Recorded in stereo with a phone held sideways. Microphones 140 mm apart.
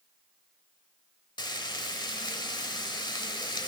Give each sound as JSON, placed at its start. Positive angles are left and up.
{"t": 1.4, "sound": "frying", "side_deg": 30, "distance_m": 1.0}